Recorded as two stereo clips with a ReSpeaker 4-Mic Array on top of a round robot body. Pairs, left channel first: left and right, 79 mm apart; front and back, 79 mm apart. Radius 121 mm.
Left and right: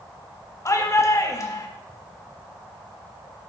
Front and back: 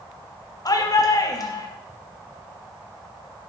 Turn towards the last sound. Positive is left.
turn(degrees=40)